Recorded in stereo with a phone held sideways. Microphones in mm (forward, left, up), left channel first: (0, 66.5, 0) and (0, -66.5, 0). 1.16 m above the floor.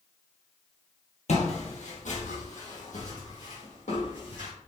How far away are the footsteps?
About 2 m.